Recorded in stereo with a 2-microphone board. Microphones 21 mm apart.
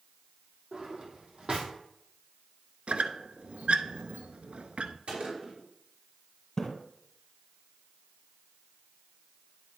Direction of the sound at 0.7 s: 55° right (ahead or behind).